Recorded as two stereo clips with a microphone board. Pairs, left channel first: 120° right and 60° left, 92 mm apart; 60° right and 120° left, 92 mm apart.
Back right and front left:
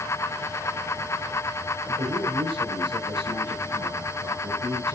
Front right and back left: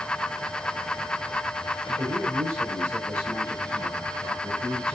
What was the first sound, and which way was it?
A man speaking, 60° left.